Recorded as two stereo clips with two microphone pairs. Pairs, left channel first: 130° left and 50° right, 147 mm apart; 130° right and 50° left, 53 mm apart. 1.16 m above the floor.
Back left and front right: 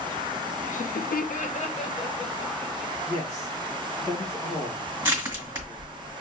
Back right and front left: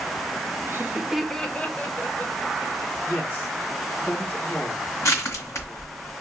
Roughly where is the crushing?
Behind right.